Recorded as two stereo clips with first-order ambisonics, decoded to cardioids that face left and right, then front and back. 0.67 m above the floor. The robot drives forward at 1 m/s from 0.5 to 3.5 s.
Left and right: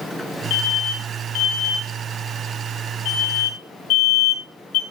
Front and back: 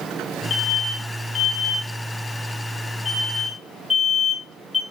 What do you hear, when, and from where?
0.5 s an alarm: 55° left, 6.5 m; by 4.8 s 85° left, 5.5 m